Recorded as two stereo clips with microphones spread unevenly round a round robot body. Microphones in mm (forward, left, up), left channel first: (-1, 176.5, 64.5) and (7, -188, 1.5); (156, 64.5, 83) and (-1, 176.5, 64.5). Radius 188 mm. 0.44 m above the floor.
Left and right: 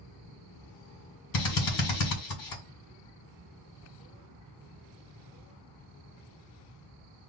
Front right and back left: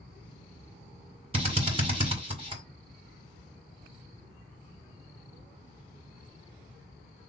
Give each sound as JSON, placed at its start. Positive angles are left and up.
{"t": 1.3, "sound": "a drill", "azimuth_deg": 100, "distance_m": 2.0}